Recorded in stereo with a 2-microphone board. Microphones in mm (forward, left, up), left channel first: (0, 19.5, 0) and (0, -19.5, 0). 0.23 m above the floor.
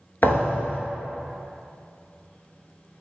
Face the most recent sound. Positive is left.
turn(degrees=60)  # may be behind; listen again after turning